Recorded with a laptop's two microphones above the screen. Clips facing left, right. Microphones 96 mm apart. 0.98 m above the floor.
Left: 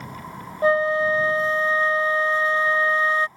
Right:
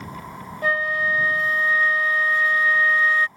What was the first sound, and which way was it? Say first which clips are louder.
A flute: left 5 dB; 30° left (ahead or behind).